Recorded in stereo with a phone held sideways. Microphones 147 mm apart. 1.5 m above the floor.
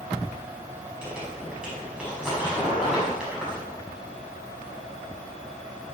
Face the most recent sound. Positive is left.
turn(degrees=-60)  # may be behind; listen again after turning